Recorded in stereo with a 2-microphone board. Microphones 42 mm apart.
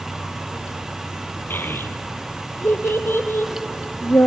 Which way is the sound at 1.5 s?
60° left (ahead or behind).